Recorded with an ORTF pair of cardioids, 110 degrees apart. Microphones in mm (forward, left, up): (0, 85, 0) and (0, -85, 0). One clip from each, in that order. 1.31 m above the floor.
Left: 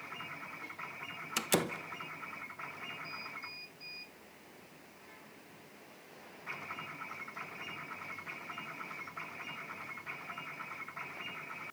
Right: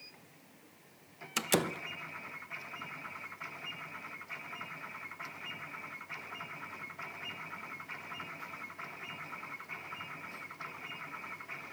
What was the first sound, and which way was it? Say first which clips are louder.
A door slam: right 1 dB; 5° right.